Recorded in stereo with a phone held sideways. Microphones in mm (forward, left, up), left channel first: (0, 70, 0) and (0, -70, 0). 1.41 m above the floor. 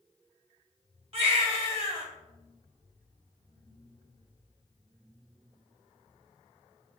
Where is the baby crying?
45° right (ahead or behind), 1.5 m.